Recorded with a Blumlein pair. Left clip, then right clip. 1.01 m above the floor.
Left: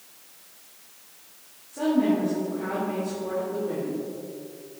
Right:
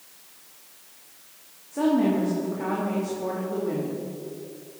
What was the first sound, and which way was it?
A woman speaking, 70° right.